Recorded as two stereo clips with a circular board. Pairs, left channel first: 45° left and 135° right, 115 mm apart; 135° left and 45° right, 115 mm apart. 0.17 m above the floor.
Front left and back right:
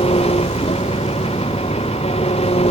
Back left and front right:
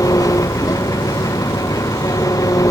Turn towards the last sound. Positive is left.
turn(degrees=75)